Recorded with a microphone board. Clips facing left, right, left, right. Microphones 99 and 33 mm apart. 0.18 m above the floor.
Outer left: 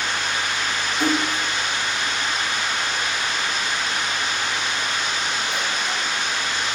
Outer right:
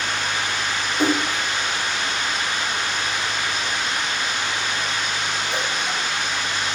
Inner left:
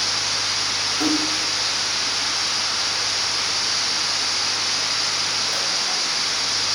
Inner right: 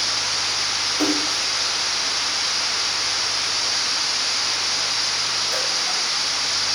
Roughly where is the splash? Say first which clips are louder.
Outer right 1 dB, inner left 1 dB; right.